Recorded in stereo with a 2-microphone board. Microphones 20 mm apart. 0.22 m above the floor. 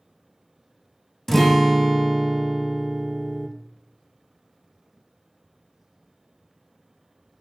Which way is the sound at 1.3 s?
15° left (ahead or behind).